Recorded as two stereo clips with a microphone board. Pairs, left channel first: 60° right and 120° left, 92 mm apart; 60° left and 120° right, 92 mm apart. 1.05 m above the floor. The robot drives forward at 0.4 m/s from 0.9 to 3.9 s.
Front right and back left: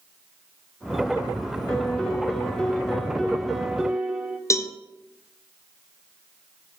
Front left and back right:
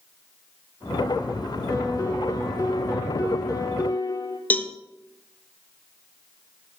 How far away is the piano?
About 1.6 m.